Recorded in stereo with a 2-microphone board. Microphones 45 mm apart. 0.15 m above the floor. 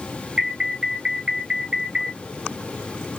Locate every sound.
0.4 s an alarm: 20° right (ahead or behind), 1.6 m